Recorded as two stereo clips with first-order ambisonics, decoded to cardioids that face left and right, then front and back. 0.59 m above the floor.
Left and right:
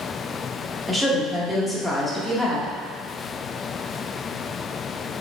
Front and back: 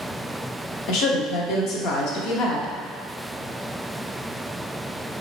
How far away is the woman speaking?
About 0.8 m.